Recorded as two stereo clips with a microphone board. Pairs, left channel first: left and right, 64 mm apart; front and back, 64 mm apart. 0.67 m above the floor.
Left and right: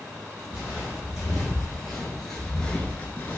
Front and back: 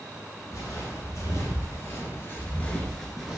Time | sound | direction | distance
0.5 | footsteps | 10° right | 1.5 m